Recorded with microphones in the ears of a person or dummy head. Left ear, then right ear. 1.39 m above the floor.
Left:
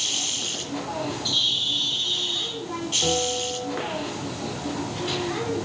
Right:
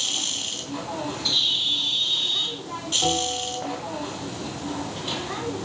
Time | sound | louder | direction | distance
0.0 | a machine running | even | 15° right (ahead or behind) | 2 m
1.2 | a bird | right 1 dB | 20° right (ahead or behind) | 2.5 m
3.0 | a bell | left 2 dB | 5° right (ahead or behind) | 3 m